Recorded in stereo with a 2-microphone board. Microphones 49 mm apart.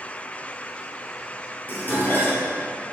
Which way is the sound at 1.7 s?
40° left (ahead or behind).